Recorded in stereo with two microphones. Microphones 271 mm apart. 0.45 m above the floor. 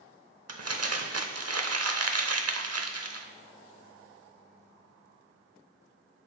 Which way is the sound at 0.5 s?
60° right (ahead or behind).